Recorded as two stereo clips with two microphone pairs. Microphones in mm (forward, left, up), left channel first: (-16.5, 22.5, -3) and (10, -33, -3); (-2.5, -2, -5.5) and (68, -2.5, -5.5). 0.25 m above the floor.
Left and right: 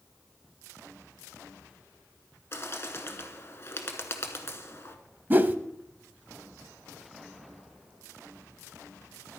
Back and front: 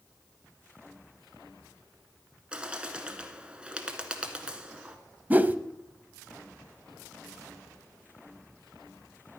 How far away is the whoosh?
About 0.5 m.